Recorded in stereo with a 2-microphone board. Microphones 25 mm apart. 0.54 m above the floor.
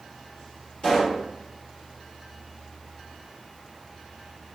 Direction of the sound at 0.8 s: 45° left (ahead or behind).